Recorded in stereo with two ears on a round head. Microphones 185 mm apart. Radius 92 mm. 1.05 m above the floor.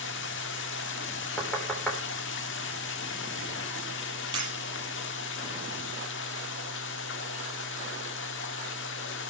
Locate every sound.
0.0 s running water: 60° left (ahead or behind), 1.5 m
1.4 s knocking: 5° left (ahead or behind), 3.5 m
4.3 s breaking glass: 20° right (ahead or behind), 8 m